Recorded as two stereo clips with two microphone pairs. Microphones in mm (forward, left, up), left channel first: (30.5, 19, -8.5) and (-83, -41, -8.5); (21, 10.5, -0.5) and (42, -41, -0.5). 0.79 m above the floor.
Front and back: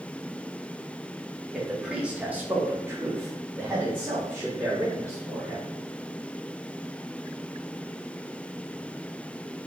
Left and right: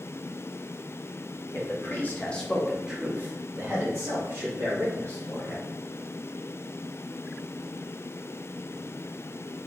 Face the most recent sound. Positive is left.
turn(degrees=-75)